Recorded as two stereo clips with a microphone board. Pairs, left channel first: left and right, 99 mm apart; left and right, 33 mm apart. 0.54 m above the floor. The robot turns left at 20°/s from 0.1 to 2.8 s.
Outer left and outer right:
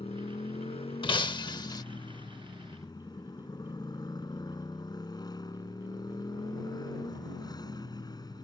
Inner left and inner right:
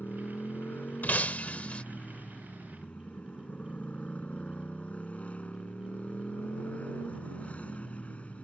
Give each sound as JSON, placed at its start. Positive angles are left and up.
{"t": 0.0, "sound": "a motorcycle", "azimuth_deg": 100}
{"t": 1.0, "sound": "breaking glass", "side_deg": 60}